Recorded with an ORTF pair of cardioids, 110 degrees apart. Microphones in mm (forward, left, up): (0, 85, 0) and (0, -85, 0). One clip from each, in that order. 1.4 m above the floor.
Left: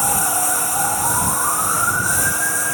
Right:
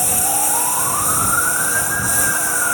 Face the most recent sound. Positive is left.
turn(degrees=-10)